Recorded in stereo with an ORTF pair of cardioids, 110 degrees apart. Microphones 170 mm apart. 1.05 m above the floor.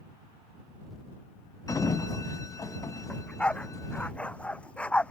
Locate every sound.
1.7 s a sliding door: 20° left
3.1 s a dog barking: 5° left